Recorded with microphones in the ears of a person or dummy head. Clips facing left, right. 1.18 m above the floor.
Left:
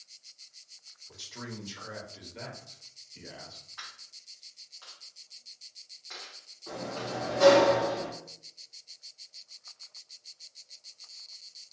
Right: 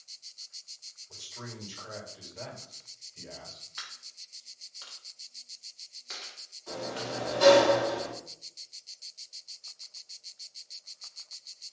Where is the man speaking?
80° left, 1.4 m.